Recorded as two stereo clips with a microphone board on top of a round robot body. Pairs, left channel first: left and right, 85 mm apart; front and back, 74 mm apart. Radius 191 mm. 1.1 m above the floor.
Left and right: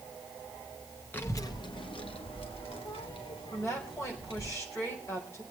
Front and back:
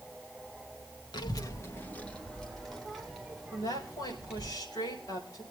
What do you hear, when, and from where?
1.1 s a child speaking: 20° left, 1.0 m; by 4.5 s 100° left, 5 m
3.5 s a woman speaking: 30° left, 5 m